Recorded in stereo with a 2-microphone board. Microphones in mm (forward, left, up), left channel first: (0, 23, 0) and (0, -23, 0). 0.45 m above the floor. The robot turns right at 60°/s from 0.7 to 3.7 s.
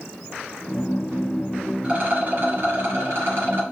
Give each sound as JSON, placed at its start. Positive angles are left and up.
{"t": 1.8, "sound": "a rattle", "azimuth_deg": -155, "distance_m": 2.0}